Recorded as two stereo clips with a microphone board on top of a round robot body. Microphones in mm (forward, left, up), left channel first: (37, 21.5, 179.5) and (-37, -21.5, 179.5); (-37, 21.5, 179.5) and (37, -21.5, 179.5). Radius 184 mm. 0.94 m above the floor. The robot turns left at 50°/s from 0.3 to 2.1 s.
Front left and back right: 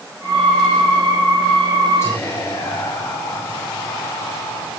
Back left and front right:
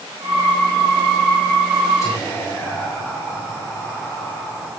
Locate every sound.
2.0 s whispering: 95° left, 7.5 m; by 4.7 s 90° left, 7.5 m